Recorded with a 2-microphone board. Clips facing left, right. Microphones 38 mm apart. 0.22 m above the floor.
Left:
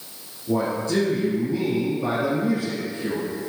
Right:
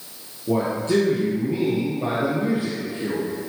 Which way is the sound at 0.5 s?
45° right (ahead or behind).